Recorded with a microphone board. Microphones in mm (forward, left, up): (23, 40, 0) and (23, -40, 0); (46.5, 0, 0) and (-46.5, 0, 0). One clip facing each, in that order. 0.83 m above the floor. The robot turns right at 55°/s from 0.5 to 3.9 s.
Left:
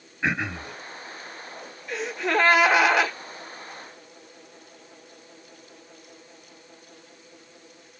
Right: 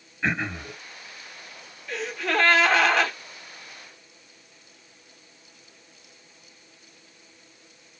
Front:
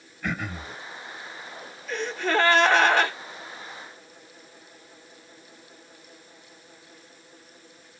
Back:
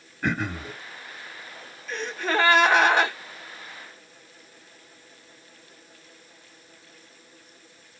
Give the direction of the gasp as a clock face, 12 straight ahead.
9 o'clock.